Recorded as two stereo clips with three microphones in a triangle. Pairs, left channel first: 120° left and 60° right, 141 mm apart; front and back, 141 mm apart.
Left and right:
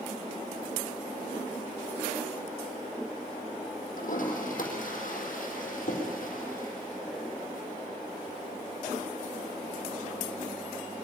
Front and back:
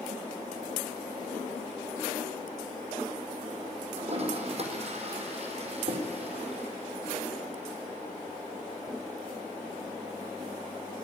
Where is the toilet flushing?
140° left, 4 m.